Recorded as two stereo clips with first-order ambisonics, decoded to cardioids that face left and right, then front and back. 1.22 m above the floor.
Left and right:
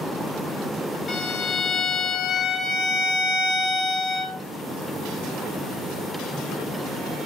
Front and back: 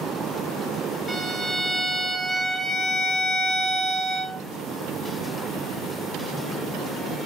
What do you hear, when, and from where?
1.1 s a violin: 85° left, 0.6 m